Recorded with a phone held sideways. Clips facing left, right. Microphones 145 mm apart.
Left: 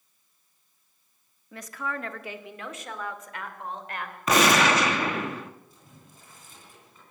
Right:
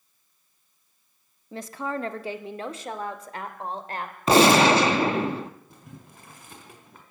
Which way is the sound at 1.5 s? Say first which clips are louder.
Right 4 dB; 25° right (ahead or behind).